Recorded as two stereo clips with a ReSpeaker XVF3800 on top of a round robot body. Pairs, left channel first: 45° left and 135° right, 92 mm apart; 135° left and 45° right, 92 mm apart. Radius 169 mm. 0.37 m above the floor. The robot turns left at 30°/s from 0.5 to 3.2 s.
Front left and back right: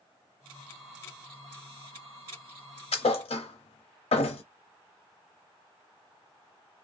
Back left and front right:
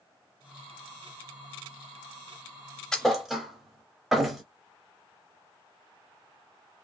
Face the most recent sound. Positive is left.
turn(degrees=40)